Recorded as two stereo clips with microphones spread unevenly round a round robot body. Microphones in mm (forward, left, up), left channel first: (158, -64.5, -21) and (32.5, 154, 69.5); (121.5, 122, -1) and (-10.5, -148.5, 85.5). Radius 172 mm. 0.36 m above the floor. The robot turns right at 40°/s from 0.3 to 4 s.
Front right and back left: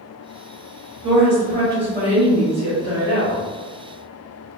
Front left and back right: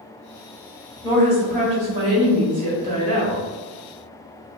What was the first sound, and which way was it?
A woman speaking, 155° left.